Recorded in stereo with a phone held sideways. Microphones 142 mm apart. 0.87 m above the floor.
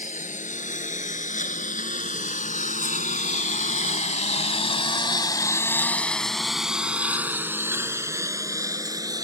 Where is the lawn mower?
65° left (ahead or behind); by 9.2 s 25° right (ahead or behind).